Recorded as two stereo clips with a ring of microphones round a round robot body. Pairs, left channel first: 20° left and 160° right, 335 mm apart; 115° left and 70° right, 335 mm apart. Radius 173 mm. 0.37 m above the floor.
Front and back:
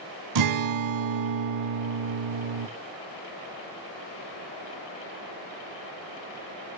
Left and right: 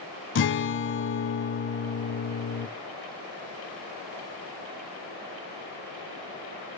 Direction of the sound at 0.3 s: 170° left.